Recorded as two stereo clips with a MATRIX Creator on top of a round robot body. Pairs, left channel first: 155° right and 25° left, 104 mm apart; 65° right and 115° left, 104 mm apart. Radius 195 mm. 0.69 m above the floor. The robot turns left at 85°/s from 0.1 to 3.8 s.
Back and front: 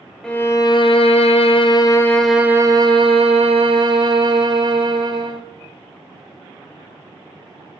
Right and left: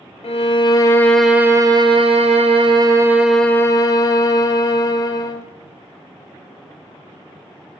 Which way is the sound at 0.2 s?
75° right.